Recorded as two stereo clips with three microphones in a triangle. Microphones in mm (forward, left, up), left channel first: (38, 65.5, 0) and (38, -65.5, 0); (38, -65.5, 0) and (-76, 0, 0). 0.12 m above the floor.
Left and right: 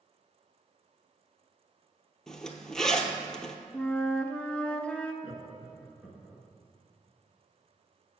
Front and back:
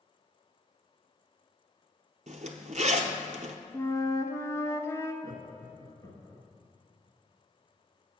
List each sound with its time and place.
2.3 s a zipper: 175° left, 0.7 m
3.7 s a flute: 15° left, 0.6 m
5.2 s laughter: 10° right, 1.2 m